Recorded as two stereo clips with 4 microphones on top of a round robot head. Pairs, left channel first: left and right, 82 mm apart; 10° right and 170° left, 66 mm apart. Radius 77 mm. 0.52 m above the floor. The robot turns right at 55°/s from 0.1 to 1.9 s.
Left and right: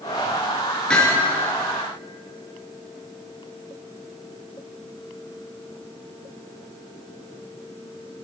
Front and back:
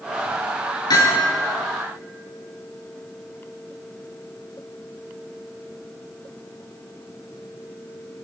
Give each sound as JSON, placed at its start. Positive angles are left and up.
{"t": 0.9, "sound": "hammering", "azimuth_deg": 10, "distance_m": 5.5}